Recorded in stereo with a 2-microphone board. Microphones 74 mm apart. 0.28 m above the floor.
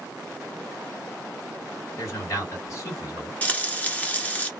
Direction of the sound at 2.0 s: 45° left (ahead or behind).